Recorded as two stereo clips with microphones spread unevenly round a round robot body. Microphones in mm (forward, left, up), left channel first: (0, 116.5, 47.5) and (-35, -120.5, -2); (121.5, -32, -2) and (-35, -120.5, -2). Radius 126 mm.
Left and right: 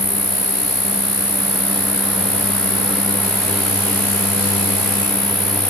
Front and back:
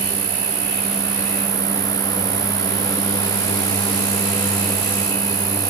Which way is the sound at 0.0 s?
175° right.